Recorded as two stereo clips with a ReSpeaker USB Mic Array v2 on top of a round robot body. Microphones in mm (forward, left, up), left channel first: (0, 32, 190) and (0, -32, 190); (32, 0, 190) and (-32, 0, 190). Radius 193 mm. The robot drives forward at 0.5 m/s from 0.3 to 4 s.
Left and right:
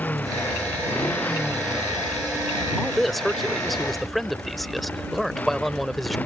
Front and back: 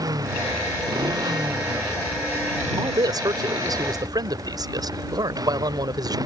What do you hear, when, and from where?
0.0 s a motorcycle: 155° left
2.8 s a man speaking: straight behind